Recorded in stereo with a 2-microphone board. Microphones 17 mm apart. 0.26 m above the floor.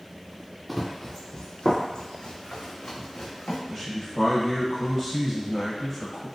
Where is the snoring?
No snoring in this recording.